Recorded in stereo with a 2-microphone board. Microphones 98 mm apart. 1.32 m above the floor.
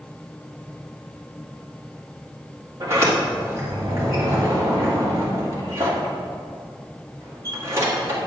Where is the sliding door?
30° right (ahead or behind), 2.5 m.